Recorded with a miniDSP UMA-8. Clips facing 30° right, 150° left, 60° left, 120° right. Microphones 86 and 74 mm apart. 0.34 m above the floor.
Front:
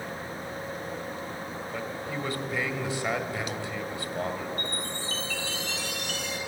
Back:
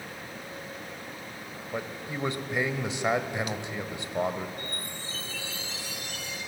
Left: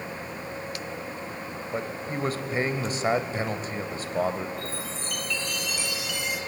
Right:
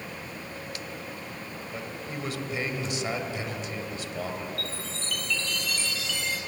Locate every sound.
1.7 s a man speaking: 90° left, 1.6 m
4.6 s a chime: 20° right, 3.5 m